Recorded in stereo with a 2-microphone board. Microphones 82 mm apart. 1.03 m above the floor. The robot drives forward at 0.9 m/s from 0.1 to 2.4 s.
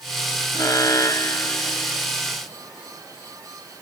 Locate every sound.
0.5 s an alarm: 45° left (ahead or behind); by 2.1 s 35° left (ahead or behind)